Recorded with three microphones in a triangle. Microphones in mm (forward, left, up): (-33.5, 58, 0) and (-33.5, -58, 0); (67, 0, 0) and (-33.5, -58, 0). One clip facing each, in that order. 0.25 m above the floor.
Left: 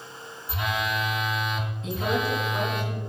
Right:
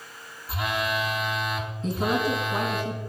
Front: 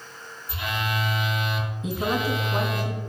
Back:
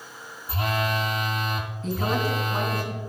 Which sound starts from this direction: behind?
A phone buzzing, at 0.5 s.